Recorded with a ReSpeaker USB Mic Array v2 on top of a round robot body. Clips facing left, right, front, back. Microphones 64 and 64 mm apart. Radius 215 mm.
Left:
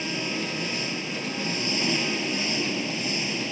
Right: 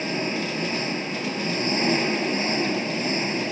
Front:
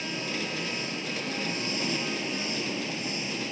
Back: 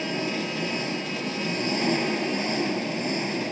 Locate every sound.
0.0 s an engine running: 145° right